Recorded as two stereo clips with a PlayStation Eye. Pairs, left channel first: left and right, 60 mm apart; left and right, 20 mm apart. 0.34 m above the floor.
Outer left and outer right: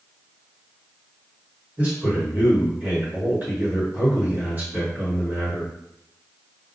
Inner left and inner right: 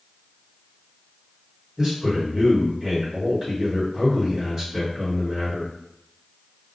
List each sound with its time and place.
1.8 s a man speaking: 30° right (ahead or behind), 1.5 m